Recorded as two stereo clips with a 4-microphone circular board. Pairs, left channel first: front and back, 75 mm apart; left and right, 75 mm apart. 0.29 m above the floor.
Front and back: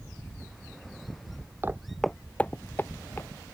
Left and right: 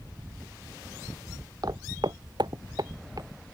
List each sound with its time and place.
1.6 s footsteps: 120° right; by 3.3 s 55° right